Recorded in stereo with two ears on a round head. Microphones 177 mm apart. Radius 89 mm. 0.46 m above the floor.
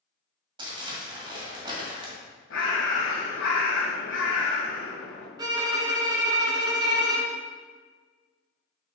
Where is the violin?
20° right (ahead or behind), 1.0 m.